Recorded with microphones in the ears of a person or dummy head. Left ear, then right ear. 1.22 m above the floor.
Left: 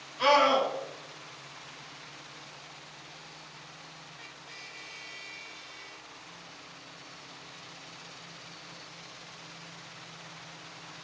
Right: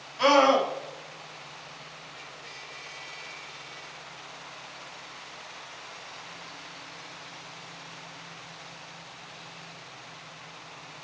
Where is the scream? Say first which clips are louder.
Right 3 dB; 75° right (ahead or behind), 3 m.